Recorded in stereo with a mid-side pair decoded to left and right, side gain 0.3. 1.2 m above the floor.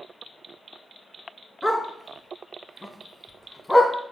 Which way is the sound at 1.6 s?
10° left.